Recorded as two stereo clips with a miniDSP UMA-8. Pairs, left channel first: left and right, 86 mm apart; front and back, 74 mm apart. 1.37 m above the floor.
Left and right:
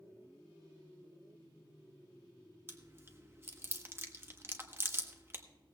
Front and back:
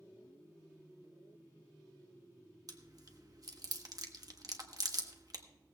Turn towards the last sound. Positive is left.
turn(degrees=-150)